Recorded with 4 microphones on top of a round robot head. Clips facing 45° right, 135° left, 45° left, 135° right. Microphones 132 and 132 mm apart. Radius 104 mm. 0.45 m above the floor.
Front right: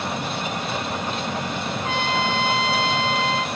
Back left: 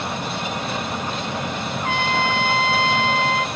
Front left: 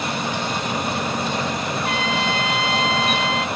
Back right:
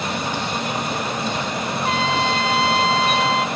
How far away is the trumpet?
About 0.6 m.